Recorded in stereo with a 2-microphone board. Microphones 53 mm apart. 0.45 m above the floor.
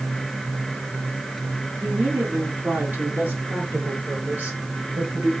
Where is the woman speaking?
40° right (ahead or behind), 5.5 m.